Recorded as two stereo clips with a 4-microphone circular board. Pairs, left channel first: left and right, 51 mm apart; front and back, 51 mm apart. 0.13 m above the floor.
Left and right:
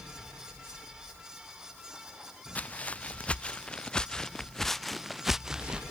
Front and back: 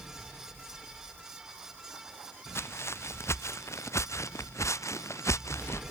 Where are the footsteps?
30° left; by 5.8 s 15° right.